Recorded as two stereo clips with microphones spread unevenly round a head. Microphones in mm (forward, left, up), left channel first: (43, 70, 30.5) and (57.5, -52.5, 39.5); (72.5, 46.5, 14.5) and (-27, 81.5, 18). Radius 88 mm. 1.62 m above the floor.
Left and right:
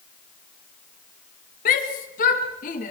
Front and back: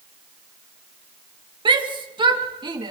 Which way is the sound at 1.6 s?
120° left.